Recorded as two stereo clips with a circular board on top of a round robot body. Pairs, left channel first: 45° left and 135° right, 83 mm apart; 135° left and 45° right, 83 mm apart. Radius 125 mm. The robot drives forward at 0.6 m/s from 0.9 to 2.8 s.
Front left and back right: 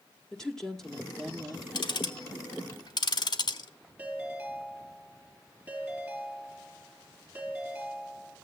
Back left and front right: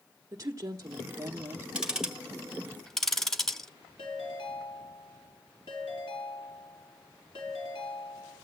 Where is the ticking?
35° left, 1.8 m; by 3.7 s 50° left, 1.4 m.